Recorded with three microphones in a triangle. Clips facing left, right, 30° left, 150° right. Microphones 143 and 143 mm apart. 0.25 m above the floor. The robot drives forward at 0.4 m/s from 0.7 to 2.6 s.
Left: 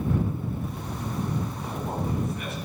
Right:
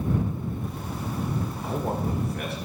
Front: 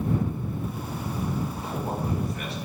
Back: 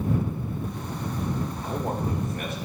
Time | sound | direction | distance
1.6 | a man speaking | 105° right | 3.5 m